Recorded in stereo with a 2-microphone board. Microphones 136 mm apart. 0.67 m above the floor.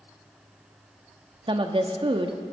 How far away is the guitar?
No guitar in this recording.